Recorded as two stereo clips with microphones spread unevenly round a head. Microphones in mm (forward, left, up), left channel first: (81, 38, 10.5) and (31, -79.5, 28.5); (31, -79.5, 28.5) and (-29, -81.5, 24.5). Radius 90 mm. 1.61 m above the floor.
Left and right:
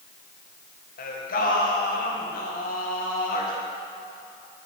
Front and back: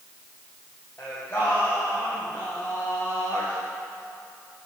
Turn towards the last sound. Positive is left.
turn(degrees=75)